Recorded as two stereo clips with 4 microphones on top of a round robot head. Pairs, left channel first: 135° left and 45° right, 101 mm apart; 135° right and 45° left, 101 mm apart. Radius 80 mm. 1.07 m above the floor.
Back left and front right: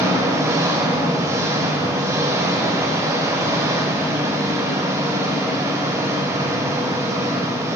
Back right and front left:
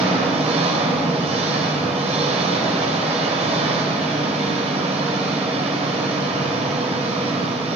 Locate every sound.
0.0 s an engine running: 20° left, 3 m